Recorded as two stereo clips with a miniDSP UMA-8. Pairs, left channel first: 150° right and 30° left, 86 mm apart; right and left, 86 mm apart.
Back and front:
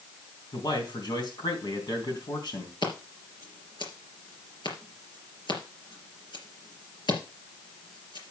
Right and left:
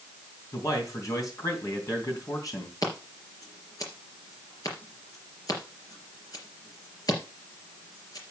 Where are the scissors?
130° right, 3.5 m.